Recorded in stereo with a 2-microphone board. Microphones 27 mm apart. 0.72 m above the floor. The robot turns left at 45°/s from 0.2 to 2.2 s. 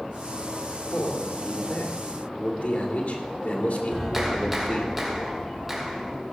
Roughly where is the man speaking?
Behind left.